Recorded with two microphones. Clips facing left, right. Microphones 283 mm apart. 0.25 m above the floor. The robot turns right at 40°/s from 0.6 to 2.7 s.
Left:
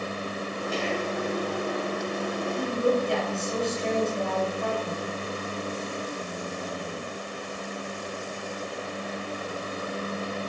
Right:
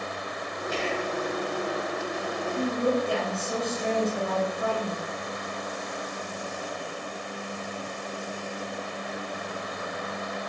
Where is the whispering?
45° right (ahead or behind), 1.3 m.